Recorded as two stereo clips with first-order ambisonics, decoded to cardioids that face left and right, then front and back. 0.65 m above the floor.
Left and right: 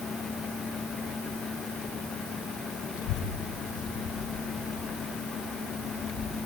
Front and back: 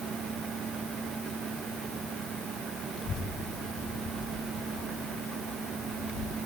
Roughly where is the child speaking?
Ahead left.